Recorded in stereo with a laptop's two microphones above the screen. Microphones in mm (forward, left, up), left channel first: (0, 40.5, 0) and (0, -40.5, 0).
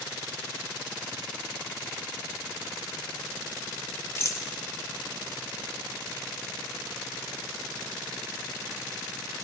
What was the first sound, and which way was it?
A rattle, 35° left (ahead or behind).